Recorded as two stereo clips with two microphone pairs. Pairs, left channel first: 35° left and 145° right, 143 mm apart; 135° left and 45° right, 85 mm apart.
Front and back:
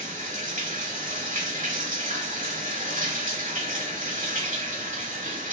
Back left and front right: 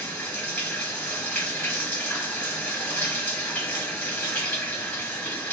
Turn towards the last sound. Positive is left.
turn(degrees=-160)